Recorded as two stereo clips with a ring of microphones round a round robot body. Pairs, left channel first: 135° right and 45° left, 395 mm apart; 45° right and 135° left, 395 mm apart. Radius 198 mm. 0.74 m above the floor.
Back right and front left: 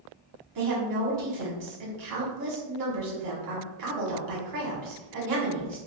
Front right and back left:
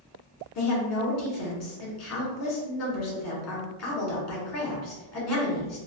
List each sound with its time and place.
0.6 s a woman speaking: 5° left, 1.7 m